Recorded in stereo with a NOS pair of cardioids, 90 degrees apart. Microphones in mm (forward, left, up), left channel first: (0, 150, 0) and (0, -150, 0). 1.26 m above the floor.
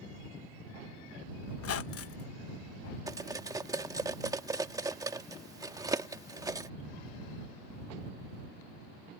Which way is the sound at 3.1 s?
10° right.